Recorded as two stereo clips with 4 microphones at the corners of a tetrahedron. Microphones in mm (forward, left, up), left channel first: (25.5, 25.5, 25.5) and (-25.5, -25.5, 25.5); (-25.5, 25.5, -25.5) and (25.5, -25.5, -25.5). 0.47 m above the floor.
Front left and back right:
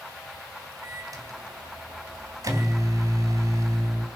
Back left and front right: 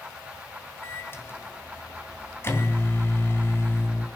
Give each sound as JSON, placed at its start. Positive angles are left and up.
{"t": 0.8, "sound": "a microwave", "azimuth_deg": -170, "distance_m": 3.0}